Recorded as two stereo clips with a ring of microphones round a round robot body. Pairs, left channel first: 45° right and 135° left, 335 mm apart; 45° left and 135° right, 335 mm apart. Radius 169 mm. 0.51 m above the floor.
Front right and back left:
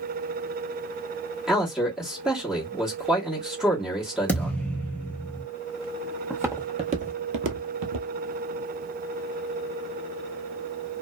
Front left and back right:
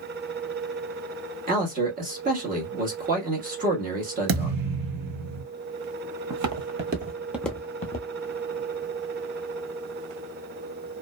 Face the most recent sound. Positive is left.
turn(degrees=95)